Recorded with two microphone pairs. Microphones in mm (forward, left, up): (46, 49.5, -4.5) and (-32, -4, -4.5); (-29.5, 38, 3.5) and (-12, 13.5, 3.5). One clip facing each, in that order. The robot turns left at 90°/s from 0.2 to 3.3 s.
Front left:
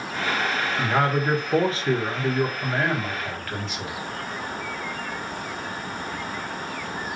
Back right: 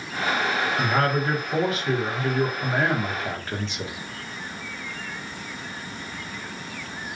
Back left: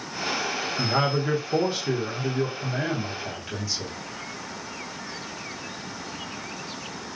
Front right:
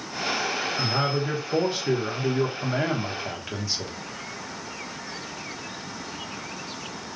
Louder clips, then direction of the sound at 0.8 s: Front left 2 dB, back left 4 dB; 115° left.